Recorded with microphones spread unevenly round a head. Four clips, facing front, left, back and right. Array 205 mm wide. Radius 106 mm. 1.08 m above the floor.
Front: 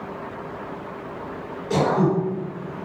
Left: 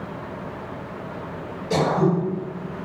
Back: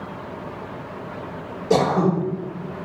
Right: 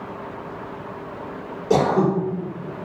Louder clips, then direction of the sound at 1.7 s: Right 2 dB, back 2 dB; 120° right.